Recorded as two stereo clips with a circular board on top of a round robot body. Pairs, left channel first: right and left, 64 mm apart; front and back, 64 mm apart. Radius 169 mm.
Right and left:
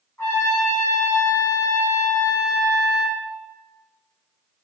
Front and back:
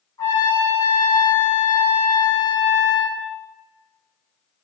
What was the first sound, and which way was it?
A trumpet, 25° right.